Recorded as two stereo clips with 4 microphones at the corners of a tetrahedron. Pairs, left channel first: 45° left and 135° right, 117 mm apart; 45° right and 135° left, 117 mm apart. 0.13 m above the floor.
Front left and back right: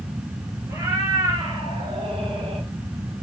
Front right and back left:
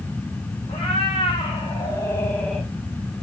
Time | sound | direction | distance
0.7 | a cat meowing | 75° right | 1.6 m